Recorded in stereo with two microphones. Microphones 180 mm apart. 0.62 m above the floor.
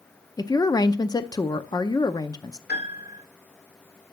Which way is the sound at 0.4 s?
20° left (ahead or behind).